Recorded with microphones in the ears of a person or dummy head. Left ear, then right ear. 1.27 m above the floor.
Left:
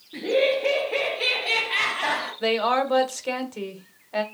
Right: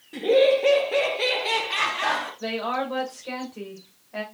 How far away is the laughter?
About 1.0 m.